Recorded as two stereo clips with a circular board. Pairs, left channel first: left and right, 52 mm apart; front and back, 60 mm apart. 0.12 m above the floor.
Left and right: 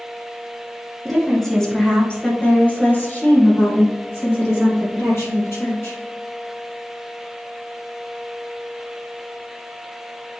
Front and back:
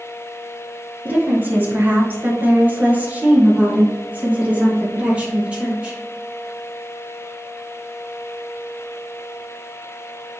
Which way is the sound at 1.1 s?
175° right.